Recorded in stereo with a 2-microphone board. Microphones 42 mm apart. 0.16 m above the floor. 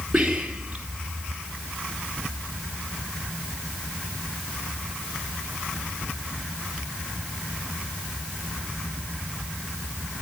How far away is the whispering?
About 3.5 m.